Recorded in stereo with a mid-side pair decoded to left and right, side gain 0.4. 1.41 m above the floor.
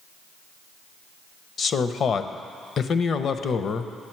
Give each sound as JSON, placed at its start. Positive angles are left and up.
{"t": 1.6, "sound": "a man speaking", "azimuth_deg": 55, "distance_m": 0.7}